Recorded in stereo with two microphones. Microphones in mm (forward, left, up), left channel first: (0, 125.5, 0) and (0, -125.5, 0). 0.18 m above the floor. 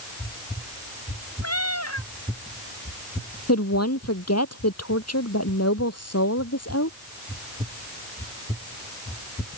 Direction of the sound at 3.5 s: 75° left (ahead or behind).